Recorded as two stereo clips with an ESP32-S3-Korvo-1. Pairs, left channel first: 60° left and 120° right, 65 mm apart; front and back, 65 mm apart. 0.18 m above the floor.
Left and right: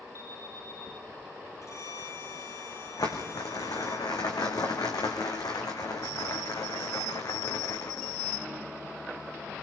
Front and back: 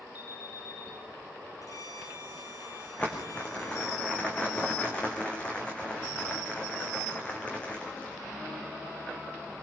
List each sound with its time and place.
0.1 s an alarm: 15° left, 8 m
1.6 s a violin: 20° left, 4.5 m
3.0 s crumpling: 70° left, 3.5 m